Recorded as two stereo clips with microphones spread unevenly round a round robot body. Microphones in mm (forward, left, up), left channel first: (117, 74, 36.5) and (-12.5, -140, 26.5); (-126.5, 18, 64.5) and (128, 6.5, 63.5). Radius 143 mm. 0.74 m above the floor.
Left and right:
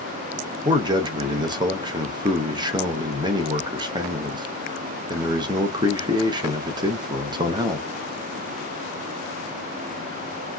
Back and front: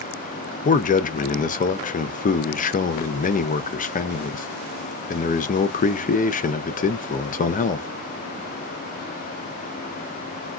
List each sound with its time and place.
0.7 s a man speaking: 170° right, 0.5 m